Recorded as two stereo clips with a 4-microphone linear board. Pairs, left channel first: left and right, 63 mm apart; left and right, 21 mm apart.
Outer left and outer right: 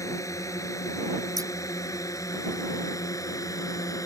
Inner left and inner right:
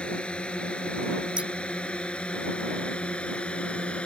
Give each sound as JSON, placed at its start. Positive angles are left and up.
{"t": 0.0, "sound": "a drone", "side_deg": 55}
{"t": 1.4, "sound": "scissors", "side_deg": -70}